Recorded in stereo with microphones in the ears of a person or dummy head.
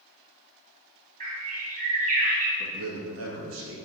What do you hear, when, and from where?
1.2 s a bird: 40° right (ahead or behind), 2 m
2.6 s a man speaking: 70° right (ahead or behind), 2 m